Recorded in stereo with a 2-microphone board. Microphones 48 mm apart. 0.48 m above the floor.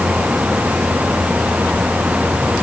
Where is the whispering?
No whispering in this recording.